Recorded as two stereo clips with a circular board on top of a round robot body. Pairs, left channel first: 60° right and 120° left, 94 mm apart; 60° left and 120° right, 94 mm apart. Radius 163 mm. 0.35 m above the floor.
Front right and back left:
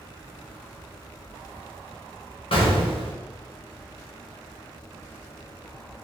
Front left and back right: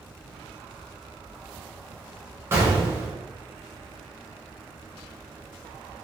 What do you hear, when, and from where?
2.5 s an explosion: 60° right, 1.7 m